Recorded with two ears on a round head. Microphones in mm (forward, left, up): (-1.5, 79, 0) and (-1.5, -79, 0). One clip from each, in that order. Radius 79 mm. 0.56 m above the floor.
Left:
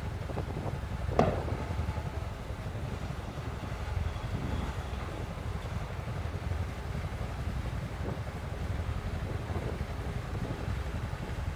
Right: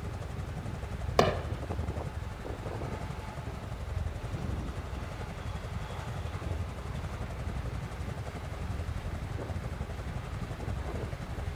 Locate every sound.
0.0 s a helicopter: 45° right (ahead or behind); by 11.6 s 65° right (ahead or behind)
1.2 s hammering: 70° right (ahead or behind)